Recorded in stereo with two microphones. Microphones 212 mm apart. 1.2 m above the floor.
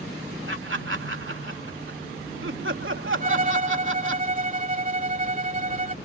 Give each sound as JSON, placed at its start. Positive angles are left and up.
{"t": 0.5, "sound": "laughter", "side_deg": -70}
{"t": 3.2, "sound": "a violin", "side_deg": -35}